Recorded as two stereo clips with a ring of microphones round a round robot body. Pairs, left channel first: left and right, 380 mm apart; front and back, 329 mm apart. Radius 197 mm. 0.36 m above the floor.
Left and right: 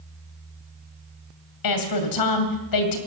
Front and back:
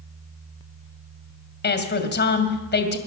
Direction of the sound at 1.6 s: 60° left.